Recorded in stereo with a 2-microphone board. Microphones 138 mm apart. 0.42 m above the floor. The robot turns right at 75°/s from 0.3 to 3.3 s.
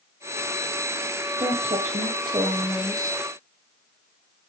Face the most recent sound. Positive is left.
turn(degrees=25)